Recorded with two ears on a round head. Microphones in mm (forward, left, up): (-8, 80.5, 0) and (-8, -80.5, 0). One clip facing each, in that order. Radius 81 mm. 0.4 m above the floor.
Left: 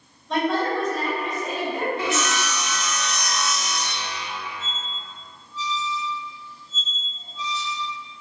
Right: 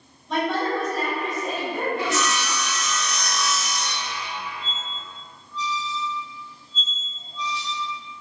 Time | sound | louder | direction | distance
0.3 | a woman speaking | left 1 dB | centre (ahead or behind) | 1.9 m
2.0 | sawing | even | 20° left (ahead or behind) | 0.5 m
4.6 | a squeak | right 1 dB | 5° left (ahead or behind) | 1.8 m